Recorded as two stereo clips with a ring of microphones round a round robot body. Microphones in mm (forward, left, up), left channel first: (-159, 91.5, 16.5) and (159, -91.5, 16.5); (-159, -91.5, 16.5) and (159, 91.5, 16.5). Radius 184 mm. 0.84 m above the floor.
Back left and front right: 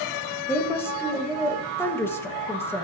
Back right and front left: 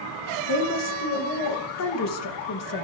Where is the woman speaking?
130° right, 1.2 m.